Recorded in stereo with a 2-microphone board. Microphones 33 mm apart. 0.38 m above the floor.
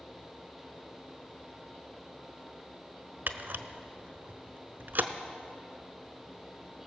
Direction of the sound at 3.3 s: 70° right (ahead or behind).